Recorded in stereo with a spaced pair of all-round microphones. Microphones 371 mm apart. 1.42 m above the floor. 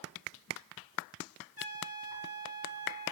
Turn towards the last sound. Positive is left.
turn(degrees=-70)  # may be behind; listen again after turning